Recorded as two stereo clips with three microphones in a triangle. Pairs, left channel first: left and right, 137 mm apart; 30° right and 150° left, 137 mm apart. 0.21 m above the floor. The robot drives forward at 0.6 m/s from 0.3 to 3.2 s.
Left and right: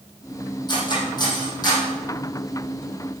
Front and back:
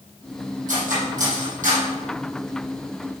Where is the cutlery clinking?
145° left, 5 m; by 1.9 s 150° left, 5.5 m.